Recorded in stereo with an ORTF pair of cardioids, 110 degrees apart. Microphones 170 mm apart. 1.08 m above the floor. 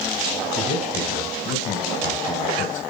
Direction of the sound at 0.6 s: 55° left.